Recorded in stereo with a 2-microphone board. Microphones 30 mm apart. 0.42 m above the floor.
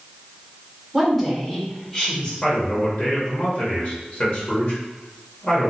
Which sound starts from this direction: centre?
A woman speaking, at 0.9 s.